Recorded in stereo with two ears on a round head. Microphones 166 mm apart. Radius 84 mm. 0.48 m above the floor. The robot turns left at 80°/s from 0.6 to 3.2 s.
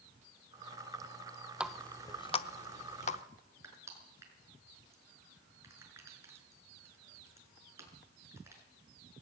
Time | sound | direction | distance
1.6 | a running tap | 5° right (ahead or behind) | 0.8 m
3.6 | crushing | 15° right (ahead or behind) | 6 m